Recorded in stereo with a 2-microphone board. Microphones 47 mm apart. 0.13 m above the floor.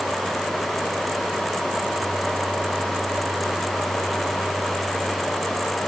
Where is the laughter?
No laughter in this recording.